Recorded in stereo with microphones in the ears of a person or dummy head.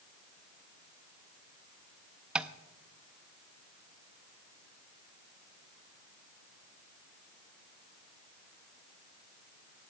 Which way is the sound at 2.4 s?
10° right (ahead or behind).